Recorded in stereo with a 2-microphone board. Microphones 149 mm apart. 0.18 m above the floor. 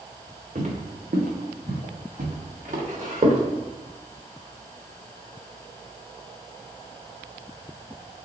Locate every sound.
0.6 s footsteps: 60° right (ahead or behind), 1.2 m; by 3.4 s 55° right (ahead or behind), 2 m